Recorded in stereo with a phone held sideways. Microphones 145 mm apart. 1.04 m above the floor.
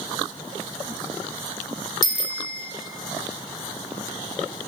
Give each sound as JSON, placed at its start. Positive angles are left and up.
{"t": 2.0, "sound": "a bicycle bell", "side_deg": 30, "distance_m": 2.0}